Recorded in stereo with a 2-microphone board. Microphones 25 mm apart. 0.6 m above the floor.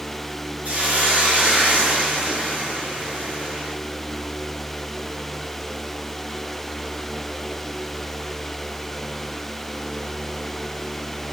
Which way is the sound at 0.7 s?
70° right (ahead or behind).